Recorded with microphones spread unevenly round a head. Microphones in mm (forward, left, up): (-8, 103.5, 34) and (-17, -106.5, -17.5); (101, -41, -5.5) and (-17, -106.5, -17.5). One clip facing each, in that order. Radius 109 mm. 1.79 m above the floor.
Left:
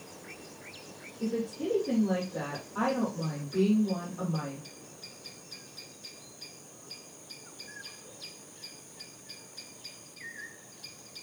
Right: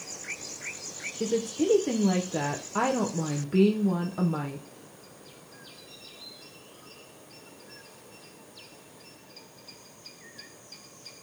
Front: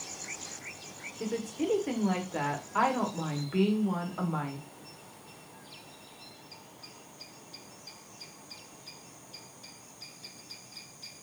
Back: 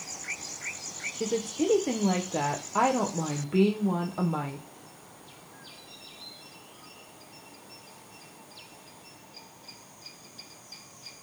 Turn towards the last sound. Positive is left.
turn(degrees=-90)